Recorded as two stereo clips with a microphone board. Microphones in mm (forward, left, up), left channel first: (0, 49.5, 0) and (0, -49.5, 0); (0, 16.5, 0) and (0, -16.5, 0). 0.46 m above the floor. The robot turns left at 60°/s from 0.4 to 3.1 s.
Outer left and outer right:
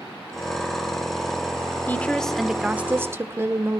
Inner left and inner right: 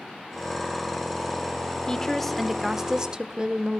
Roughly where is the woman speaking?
Ahead left.